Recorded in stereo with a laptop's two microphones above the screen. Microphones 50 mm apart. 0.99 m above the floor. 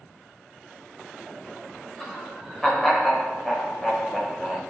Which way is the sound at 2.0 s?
10° left (ahead or behind).